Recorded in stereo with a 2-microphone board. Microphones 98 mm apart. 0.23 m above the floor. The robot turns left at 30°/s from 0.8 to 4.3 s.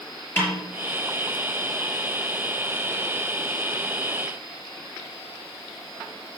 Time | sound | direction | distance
0.4 | a snare drum | 25° left (ahead or behind) | 5 m